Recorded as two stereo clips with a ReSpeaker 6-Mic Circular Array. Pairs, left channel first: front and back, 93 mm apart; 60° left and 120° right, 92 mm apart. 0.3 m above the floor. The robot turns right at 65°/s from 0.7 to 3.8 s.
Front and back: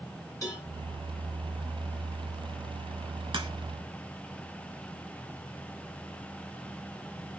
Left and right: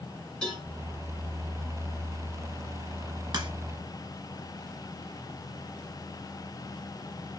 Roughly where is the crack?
Behind.